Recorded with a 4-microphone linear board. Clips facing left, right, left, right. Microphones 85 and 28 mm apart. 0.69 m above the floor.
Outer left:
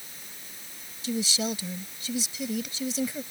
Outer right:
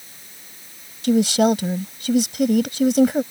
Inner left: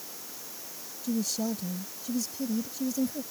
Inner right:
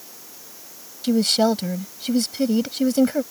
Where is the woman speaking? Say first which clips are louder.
Outer right 14 dB, inner right 12 dB; 70° right (ahead or behind).